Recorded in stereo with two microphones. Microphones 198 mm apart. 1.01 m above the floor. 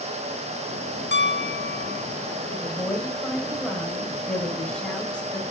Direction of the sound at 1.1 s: 60° left (ahead or behind).